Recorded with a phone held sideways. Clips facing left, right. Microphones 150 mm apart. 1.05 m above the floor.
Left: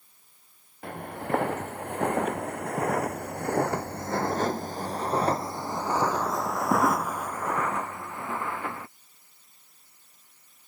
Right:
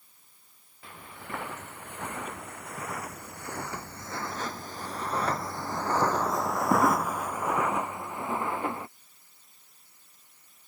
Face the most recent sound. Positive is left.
turn(degrees=-25)  # may be behind; listen again after turning